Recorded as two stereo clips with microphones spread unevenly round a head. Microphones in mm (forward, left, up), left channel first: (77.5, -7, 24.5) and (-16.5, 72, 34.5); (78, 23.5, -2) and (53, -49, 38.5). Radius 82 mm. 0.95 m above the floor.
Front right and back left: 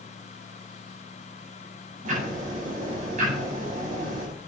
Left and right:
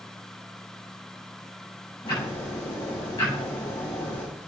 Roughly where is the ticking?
Behind left.